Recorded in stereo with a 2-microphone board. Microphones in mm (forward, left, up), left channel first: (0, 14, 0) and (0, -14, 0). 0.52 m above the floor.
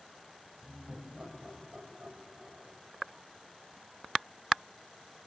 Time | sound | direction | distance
0.6 | laughter | 40° right (ahead or behind) | 4 m